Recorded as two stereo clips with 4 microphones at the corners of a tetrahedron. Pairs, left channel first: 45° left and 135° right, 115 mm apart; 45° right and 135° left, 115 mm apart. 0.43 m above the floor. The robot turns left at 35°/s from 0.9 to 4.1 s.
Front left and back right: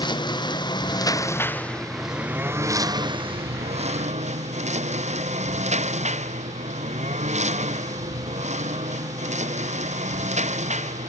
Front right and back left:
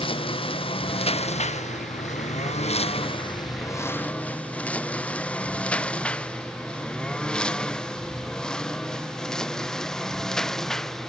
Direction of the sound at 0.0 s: 5° right.